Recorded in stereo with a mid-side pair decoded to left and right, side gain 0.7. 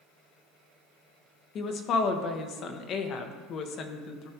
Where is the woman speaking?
45° left, 1.2 m.